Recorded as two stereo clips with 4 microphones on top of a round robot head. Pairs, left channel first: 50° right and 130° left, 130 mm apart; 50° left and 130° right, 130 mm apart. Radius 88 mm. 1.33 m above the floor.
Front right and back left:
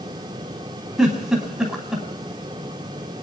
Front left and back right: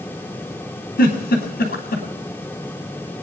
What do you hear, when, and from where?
1.0 s a giggle: 40° left, 3 m